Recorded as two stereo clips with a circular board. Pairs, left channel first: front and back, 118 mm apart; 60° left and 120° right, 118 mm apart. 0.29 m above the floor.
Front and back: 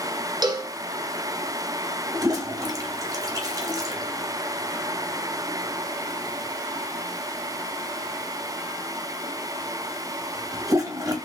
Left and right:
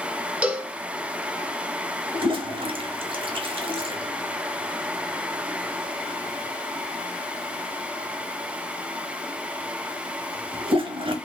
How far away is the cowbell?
About 0.7 m.